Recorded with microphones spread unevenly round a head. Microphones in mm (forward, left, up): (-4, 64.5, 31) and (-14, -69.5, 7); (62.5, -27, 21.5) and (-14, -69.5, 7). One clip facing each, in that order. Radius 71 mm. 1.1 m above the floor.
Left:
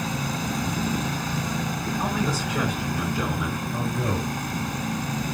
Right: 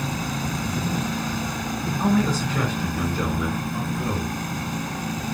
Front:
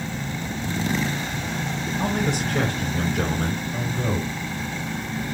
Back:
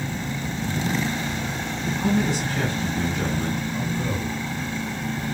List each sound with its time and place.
2.0 s a man speaking: 5° left, 5 m; by 3.6 s straight ahead, 3.5 m
3.7 s a man speaking: 40° left, 6 m